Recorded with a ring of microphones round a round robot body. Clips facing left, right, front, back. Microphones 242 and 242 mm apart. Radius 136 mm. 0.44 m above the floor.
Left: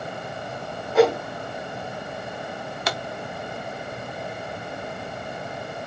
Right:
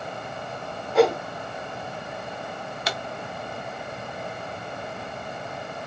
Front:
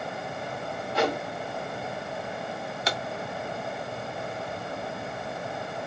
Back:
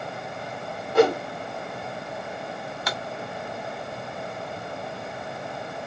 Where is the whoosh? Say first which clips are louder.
Left 1 dB, back 9 dB; straight behind, 1.0 m.